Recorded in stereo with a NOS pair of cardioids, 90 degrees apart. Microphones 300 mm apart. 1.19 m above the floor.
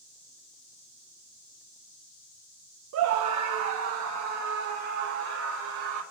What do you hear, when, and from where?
2.9 s a scream: 65° right, 0.7 m; by 6.0 s 70° right, 2.5 m